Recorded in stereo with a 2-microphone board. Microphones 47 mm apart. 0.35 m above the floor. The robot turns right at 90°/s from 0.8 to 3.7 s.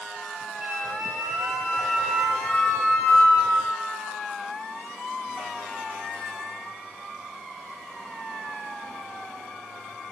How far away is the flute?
About 7.5 m.